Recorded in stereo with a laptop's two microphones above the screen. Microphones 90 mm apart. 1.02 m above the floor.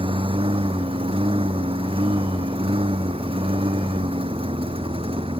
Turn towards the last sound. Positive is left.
turn(degrees=-85)